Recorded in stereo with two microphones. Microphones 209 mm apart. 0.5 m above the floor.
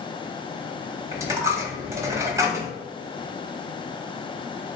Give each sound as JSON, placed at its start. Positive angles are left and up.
{"t": 1.1, "sound": "a dropped coin", "side_deg": -15, "distance_m": 0.7}